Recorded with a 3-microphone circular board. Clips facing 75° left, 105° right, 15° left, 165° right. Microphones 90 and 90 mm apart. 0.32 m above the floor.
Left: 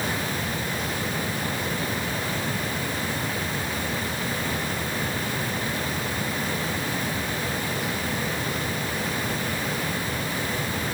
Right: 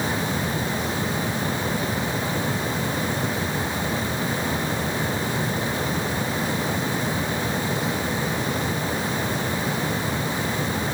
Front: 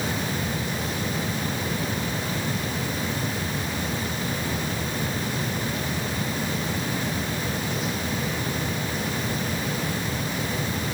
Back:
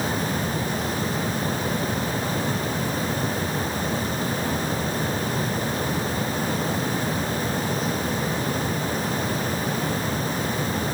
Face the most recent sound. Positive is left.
No sound to turn to.